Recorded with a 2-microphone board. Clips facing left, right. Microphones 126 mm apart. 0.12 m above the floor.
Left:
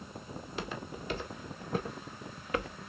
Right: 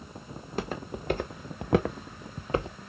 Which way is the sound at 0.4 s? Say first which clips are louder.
Right 6 dB; 40° right (ahead or behind).